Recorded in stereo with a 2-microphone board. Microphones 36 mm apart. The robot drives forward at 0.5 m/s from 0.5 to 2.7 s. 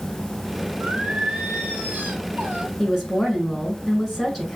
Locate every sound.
0.8 s singing: 60° right (ahead or behind), 2.5 m
2.8 s a woman speaking: 5° left (ahead or behind), 5 m